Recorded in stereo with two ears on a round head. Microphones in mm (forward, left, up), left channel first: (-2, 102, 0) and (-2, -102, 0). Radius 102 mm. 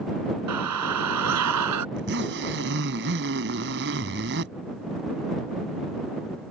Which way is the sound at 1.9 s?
50° right (ahead or behind).